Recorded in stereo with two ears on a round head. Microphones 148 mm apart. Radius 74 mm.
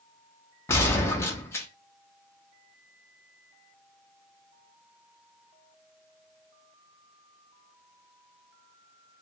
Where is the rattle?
I don't hear a rattle.